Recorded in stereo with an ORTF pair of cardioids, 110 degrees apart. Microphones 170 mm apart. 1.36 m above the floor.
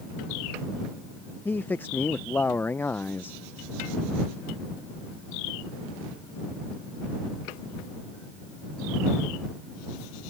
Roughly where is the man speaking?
Ahead.